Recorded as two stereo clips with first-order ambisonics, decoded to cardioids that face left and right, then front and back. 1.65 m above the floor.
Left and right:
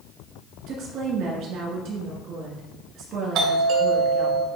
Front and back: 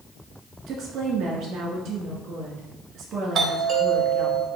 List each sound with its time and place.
0.7 s a woman speaking: 130° right, 2 m
3.4 s a doorbell: 120° right, 1.7 m